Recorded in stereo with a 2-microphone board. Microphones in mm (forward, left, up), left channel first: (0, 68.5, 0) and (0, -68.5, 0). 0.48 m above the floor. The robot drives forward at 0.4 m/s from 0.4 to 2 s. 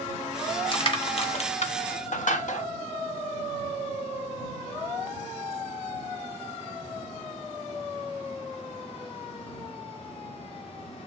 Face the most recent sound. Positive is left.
turn(degrees=65)  # may be behind; listen again after turning